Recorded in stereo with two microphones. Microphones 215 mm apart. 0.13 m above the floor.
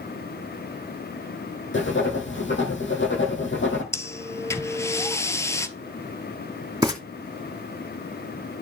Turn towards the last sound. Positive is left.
turn(degrees=-15)  # may be behind; listen again after turning